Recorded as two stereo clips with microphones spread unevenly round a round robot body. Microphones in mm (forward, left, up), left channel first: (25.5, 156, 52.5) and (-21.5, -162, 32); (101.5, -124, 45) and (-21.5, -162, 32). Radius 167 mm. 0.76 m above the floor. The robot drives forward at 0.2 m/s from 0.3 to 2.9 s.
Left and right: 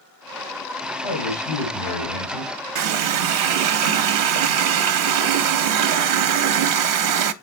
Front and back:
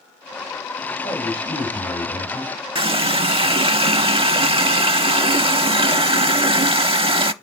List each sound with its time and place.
1.0 s a man speaking: 105° left, 2.5 m; by 2.5 s 110° left, 2.5 m
2.8 s a running tap: 115° right, 0.7 m